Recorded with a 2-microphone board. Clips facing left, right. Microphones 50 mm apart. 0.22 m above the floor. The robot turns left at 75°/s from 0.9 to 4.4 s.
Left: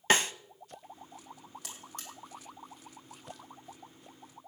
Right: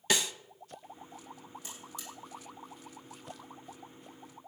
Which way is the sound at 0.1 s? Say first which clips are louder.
Left 5 dB; 45° left (ahead or behind).